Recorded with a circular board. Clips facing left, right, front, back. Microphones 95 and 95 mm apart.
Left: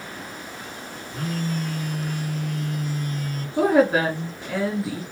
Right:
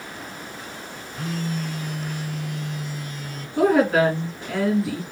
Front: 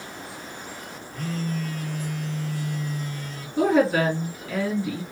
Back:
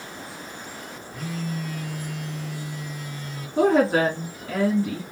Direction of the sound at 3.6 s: 160° left.